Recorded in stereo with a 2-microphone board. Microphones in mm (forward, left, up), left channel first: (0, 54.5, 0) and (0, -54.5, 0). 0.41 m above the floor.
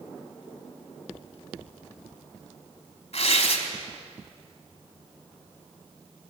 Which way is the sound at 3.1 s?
65° left (ahead or behind).